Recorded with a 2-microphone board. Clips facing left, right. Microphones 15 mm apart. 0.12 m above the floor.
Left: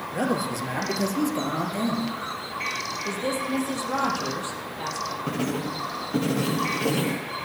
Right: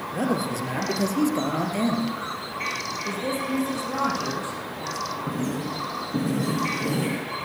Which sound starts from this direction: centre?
A man speaking, at 0.1 s.